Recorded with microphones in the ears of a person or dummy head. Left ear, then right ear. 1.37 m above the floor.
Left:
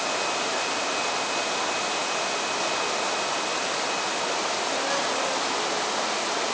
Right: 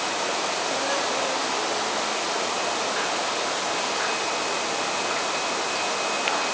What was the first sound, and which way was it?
Only background noise.